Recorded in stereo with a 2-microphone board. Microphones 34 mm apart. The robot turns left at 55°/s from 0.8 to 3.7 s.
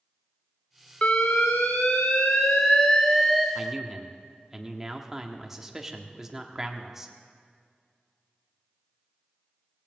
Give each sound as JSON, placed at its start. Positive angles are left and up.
{"t": 1.0, "sound": "an alarm", "azimuth_deg": 130, "distance_m": 1.3}
{"t": 3.5, "sound": "a man speaking", "side_deg": -10, "distance_m": 1.3}